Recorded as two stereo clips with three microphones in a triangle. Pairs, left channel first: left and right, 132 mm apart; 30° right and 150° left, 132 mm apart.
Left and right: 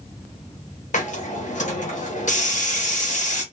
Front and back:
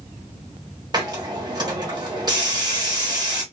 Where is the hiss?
95° left, 1.0 m.